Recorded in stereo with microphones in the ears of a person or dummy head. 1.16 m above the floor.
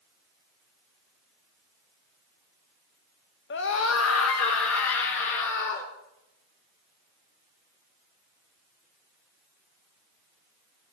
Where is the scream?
55° left (ahead or behind), 1.2 m; by 5.9 s 70° left (ahead or behind), 3 m.